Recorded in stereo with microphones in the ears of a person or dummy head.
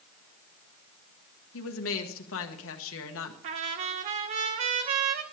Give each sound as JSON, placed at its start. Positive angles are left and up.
{"t": 1.5, "sound": "a woman speaking", "side_deg": 65, "distance_m": 1.1}
{"t": 3.4, "sound": "a trumpet", "side_deg": -35, "distance_m": 0.7}